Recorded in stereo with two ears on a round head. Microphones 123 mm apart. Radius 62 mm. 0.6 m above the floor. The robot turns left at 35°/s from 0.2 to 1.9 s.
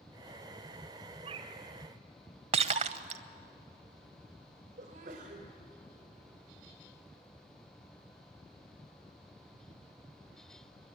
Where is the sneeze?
60° right (ahead or behind), 2.5 m.